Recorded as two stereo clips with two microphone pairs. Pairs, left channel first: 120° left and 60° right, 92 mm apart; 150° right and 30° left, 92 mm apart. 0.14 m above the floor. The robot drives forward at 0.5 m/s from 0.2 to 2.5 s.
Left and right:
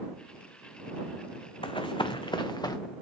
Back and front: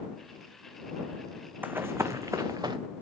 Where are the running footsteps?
100° left, 0.7 m; by 2.8 s 70° left, 1.1 m.